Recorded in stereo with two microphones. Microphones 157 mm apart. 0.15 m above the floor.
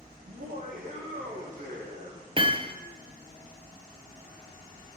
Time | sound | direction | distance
0.3 | laughter | 60° right (ahead or behind) | 5.5 m
2.4 | hammering | 35° right (ahead or behind) | 1.5 m